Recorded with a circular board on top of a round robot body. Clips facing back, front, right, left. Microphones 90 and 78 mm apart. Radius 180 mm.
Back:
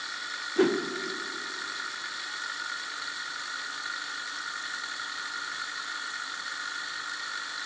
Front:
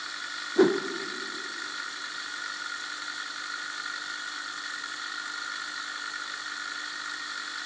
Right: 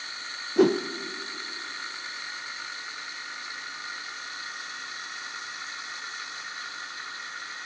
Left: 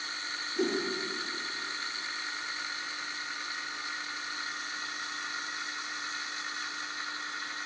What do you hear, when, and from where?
0.6 s a whoosh: 70° right, 0.8 m